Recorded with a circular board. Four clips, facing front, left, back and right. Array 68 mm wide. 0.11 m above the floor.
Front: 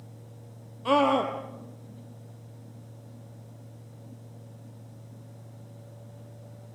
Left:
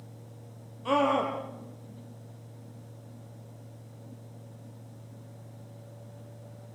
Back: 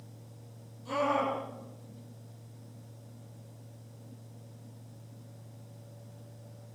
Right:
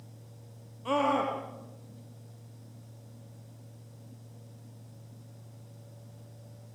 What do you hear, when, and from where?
0.8 s a scream: 10° left, 3.5 m